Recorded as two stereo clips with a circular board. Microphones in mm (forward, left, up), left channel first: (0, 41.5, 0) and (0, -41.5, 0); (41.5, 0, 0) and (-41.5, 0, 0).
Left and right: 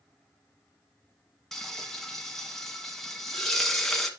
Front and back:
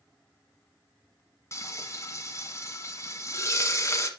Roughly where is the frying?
Ahead.